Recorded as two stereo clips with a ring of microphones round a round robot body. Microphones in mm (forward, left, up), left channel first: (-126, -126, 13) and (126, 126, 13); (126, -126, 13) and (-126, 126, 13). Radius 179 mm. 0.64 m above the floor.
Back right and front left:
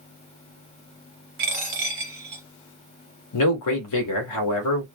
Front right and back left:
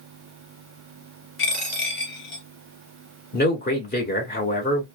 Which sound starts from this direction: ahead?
A dropped coin, at 1.4 s.